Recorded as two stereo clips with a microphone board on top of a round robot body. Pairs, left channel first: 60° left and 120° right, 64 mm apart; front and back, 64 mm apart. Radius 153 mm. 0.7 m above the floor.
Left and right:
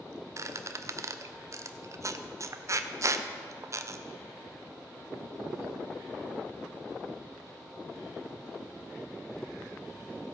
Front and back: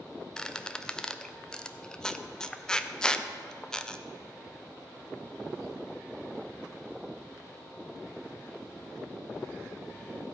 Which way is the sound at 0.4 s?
80° right.